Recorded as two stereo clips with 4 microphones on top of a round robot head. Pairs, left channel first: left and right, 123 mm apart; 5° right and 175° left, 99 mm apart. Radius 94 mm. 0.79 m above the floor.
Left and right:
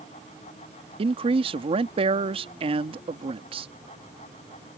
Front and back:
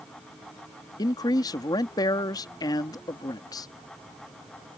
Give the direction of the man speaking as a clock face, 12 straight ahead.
2 o'clock.